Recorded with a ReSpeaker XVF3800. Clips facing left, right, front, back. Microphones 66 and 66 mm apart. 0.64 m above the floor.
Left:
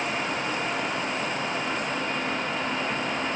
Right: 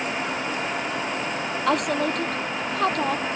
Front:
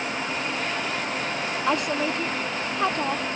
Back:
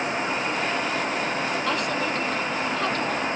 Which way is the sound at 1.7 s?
70° right.